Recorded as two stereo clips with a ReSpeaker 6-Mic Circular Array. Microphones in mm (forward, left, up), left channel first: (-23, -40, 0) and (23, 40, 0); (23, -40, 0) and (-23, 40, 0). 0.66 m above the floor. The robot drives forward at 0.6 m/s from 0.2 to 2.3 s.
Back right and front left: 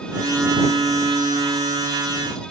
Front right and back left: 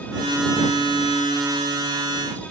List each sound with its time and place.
Only background noise.